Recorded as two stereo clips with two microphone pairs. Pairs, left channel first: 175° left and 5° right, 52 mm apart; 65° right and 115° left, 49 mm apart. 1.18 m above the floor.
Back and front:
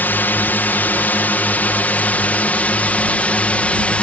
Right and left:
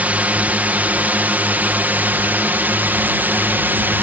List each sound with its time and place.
0.0 s a drone: 150° left; by 4.0 s 125° left